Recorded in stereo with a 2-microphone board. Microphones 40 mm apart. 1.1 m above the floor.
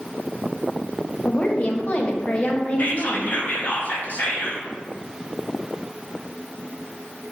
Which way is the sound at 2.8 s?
40° left (ahead or behind).